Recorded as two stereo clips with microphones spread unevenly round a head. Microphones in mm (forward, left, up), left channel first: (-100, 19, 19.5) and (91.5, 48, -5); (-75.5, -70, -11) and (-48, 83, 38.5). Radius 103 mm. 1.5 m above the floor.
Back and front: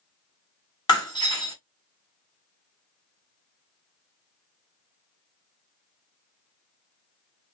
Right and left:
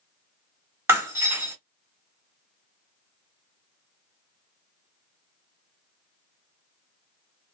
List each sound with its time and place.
0.9 s breaking glass: 135° left, 2 m